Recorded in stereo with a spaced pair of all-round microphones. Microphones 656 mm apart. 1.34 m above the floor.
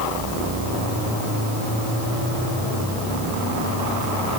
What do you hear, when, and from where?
Only background noise.